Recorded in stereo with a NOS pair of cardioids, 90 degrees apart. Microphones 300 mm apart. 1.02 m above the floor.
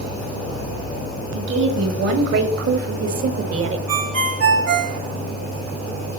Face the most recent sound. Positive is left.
turn(degrees=-55)